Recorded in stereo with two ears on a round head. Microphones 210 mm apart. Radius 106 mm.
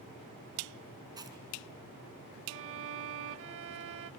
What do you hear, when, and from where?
1.2 s chewing: 20° right (ahead or behind), 3.5 m
2.5 s a violin: 55° right (ahead or behind), 0.5 m